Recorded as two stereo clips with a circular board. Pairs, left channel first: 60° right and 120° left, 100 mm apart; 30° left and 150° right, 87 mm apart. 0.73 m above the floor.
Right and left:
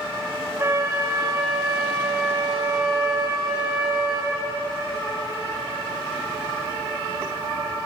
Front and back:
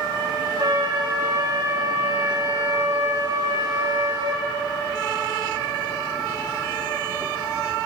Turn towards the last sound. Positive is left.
turn(degrees=180)